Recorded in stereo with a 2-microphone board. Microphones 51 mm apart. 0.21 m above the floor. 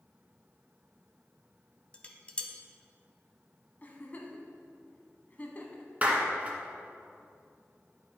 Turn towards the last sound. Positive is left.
turn(degrees=-30)  # may be behind; listen again after turning